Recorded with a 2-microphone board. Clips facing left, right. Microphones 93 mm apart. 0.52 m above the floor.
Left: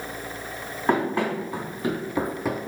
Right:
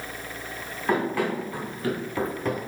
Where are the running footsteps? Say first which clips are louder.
Left 2 dB; 20° left (ahead or behind), 1.7 m; by 2.7 s 5° right (ahead or behind), 0.5 m.